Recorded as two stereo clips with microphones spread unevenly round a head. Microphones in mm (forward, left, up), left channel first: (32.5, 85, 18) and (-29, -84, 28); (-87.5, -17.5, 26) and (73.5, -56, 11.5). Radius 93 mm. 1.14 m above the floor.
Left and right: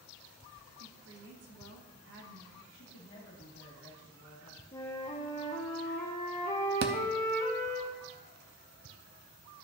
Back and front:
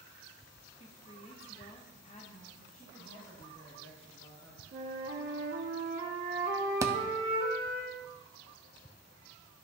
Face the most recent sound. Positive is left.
turn(degrees=-90)